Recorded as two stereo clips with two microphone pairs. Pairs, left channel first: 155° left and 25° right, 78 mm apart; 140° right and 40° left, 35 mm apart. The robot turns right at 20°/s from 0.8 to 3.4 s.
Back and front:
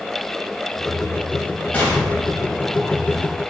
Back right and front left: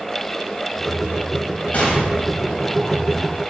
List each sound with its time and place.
1.7 s an explosion: 150° right, 1.2 m; by 3.2 s 120° right, 1.2 m